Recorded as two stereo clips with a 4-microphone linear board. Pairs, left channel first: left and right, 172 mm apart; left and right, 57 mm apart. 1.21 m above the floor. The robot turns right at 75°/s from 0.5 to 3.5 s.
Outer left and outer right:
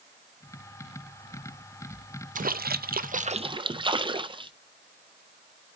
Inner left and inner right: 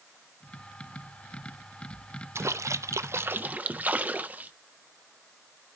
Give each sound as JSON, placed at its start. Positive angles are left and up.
{"t": 2.4, "sound": "a splash", "azimuth_deg": -120, "distance_m": 0.5}